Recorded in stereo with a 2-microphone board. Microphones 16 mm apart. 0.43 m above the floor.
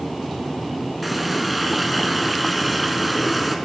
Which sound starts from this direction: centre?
A running tap, at 1.0 s.